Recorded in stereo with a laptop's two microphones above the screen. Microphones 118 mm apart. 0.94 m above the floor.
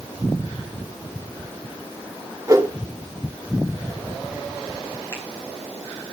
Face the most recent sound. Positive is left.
turn(degrees=25)  # may be behind; listen again after turning